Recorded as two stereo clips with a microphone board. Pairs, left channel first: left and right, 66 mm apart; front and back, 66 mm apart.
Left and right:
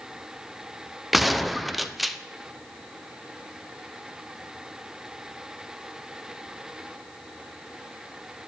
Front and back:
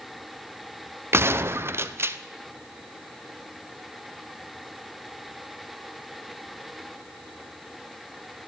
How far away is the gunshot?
About 0.6 m.